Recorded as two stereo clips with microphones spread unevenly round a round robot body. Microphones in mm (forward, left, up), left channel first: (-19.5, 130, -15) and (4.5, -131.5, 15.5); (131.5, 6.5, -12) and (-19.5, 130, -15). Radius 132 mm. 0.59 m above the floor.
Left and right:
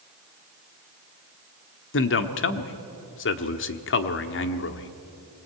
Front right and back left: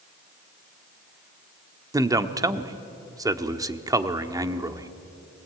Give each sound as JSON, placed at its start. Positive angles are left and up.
{"t": 1.9, "sound": "a man speaking", "azimuth_deg": 75, "distance_m": 1.0}